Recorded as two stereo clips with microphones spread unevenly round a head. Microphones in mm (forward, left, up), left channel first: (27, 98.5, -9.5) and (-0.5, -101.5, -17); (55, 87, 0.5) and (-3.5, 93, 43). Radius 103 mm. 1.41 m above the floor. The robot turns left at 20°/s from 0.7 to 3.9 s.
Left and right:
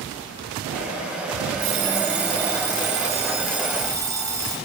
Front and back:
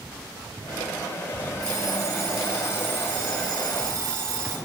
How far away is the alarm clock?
About 3 m.